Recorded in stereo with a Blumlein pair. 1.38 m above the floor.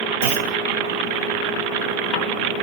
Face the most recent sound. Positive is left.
turn(degrees=-55)